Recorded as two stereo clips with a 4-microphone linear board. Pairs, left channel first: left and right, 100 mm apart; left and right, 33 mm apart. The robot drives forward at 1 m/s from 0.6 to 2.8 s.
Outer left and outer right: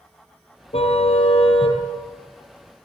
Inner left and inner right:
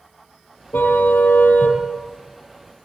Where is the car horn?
80° left, 4 m; by 1.8 s 70° left (ahead or behind), 4.5 m.